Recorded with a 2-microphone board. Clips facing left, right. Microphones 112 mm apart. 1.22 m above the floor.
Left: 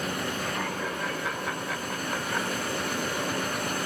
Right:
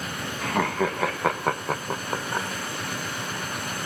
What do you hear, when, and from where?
0.4 s laughter: 85° right, 1.1 m; by 2.5 s 20° right (ahead or behind), 0.8 m